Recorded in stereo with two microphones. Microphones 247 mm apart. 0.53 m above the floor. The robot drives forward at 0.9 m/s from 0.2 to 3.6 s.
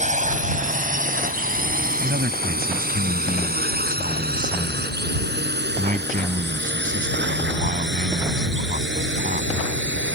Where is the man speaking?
45° right (ahead or behind); by 9.5 s 35° right (ahead or behind).